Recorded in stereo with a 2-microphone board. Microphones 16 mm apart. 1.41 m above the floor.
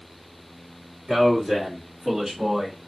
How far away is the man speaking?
About 2.5 m.